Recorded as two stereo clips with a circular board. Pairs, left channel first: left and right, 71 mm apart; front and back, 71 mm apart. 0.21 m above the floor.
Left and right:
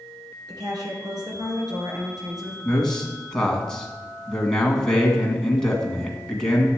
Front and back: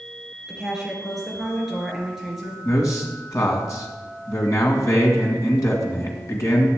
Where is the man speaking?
10° left, 1.9 m.